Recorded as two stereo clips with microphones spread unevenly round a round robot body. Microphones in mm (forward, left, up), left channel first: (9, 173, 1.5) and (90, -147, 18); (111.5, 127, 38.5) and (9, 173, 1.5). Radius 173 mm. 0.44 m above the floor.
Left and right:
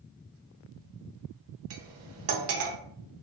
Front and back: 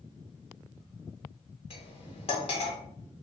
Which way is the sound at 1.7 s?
60° right.